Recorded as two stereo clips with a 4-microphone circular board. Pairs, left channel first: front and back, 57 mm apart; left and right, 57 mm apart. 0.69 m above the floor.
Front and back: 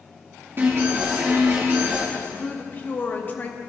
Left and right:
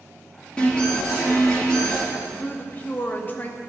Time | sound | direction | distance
0.6 | an alarm | 155° left | 1.9 m
2.1 | a woman speaking | 45° left | 0.8 m